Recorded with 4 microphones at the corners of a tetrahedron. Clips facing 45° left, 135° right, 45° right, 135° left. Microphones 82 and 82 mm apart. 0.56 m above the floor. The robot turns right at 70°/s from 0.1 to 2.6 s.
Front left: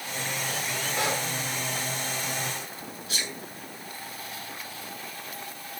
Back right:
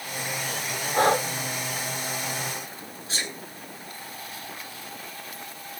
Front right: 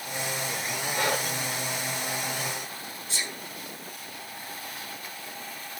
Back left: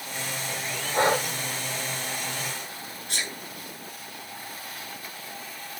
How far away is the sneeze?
About 7 m.